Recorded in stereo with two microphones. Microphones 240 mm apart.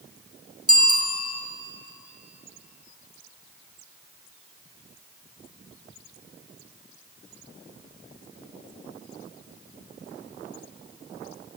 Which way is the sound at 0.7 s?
70° right (ahead or behind).